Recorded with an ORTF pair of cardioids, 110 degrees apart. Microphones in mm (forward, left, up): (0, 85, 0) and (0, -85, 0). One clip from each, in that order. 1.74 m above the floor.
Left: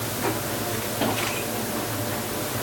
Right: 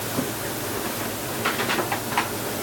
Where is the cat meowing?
No cat meowing in this recording.